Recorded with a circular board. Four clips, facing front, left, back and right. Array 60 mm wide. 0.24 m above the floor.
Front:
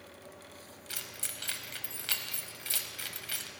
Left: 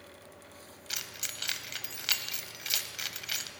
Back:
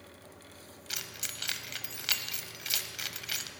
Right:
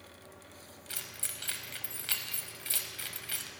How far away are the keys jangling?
About 0.7 m.